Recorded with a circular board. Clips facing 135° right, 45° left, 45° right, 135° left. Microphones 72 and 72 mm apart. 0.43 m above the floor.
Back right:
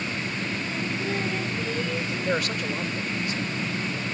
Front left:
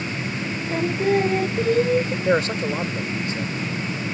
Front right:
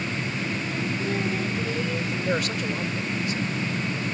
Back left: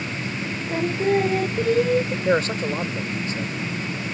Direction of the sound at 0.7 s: 95° left.